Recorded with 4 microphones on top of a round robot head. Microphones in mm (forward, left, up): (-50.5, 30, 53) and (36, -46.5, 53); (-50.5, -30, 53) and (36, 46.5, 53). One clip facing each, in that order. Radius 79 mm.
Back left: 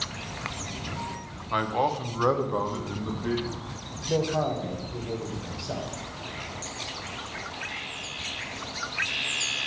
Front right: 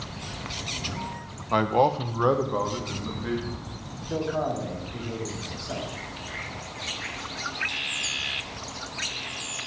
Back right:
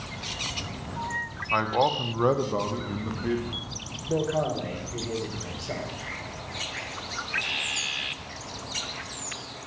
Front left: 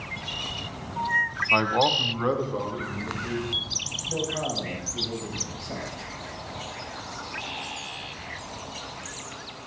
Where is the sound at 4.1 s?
155° right, 3.5 m.